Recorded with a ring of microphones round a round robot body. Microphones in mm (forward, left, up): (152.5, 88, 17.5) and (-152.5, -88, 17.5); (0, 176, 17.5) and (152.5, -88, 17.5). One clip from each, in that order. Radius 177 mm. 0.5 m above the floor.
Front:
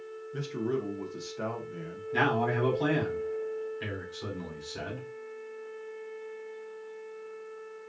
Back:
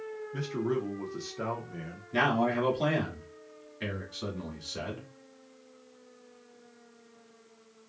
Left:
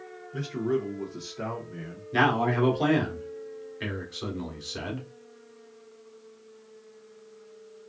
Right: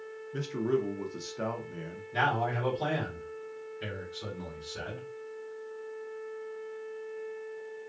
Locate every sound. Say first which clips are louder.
0.3 s a man speaking: even, left 1 dB; 60° right, 0.6 m
2.1 s a man speaking: even, left 5 dB; 130° left, 1.4 m